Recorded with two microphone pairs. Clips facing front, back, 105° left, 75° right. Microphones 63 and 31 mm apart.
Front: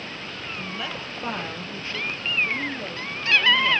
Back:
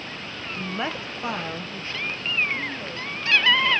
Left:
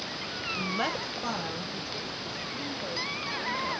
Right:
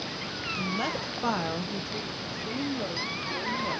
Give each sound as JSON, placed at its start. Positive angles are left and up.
{"t": 0.5, "sound": "a woman speaking", "azimuth_deg": 160, "distance_m": 0.6}